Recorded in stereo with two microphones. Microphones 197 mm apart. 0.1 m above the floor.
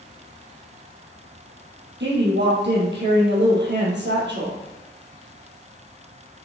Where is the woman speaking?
65° right (ahead or behind), 3 m.